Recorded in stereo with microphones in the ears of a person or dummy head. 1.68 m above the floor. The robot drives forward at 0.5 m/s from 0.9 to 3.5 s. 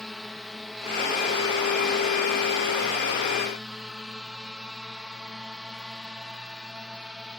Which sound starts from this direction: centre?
A drone, at 0.0 s.